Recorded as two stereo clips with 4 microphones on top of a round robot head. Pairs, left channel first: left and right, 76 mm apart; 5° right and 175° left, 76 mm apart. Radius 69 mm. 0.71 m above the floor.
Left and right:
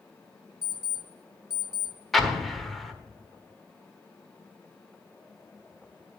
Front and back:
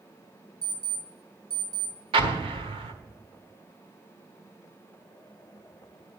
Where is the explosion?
Straight behind, 1.3 m.